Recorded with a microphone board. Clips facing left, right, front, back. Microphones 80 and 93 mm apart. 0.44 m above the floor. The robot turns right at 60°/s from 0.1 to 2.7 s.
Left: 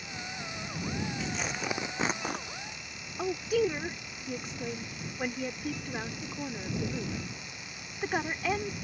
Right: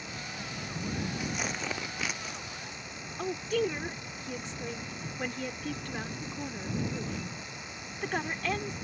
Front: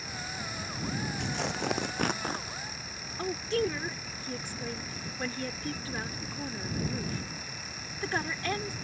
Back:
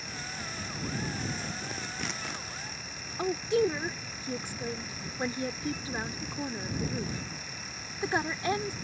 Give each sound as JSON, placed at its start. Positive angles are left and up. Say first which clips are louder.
{"t": 1.2, "sound": "tearing paper", "louder": "even, front 4 dB", "azimuth_deg": -20}
{"t": 3.2, "sound": "a woman speaking", "louder": "left 2 dB, back 3 dB", "azimuth_deg": 155}